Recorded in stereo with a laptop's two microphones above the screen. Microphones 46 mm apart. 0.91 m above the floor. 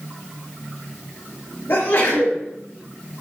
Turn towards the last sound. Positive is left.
turn(degrees=70)  # may be behind; listen again after turning